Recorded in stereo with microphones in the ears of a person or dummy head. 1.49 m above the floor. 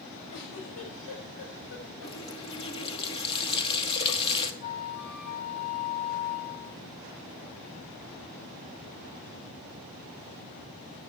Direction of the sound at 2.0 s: 25° left (ahead or behind).